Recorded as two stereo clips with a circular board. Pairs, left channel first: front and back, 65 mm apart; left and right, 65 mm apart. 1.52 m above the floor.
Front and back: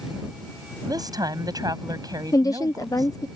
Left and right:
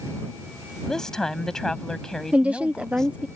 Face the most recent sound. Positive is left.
turn(degrees=-20)